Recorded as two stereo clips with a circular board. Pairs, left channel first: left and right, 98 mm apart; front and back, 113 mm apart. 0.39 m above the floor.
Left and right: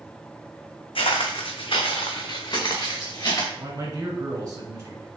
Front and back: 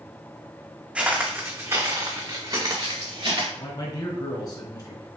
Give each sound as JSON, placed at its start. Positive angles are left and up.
{"t": 0.9, "sound": "footsteps", "azimuth_deg": 100, "distance_m": 1.0}
{"t": 3.6, "sound": "a man speaking", "azimuth_deg": -35, "distance_m": 1.5}